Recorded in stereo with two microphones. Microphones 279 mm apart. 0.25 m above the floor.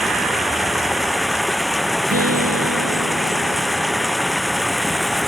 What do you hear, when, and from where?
0.0 s running water: centre (ahead or behind)
2.1 s a guitar: 65° right (ahead or behind)